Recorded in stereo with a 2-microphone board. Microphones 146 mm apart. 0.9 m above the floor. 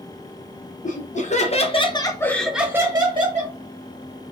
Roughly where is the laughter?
Left.